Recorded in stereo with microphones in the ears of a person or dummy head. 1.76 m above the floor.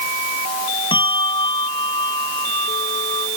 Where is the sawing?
No sawing in this recording.